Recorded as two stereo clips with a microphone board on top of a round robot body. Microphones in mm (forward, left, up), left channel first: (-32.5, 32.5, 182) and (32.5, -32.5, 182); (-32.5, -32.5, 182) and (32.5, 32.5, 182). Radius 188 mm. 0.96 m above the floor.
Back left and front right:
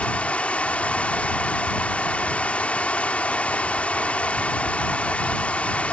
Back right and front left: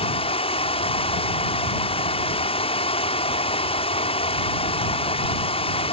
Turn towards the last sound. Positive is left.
turn(degrees=-145)